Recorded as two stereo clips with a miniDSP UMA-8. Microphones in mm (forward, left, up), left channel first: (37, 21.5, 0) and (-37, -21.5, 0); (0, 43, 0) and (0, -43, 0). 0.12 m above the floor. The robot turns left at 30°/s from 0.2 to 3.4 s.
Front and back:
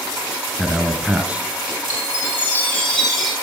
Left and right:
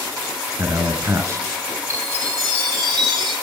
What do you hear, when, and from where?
0.6 s a man speaking: 60° right, 1.4 m; by 1.4 s 85° right, 1.4 m
1.9 s a chime: 25° right, 4.5 m; by 3.3 s 65° right, 4.5 m